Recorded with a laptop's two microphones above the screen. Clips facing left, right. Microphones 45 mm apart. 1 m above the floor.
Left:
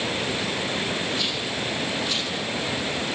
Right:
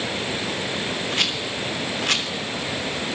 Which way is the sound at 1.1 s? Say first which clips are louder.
Right 2 dB; 65° right (ahead or behind).